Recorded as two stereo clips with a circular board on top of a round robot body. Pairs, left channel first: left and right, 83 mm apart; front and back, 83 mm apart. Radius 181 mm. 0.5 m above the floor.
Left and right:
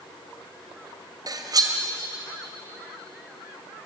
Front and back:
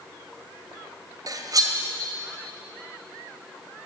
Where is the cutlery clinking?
135° right, 1.7 m.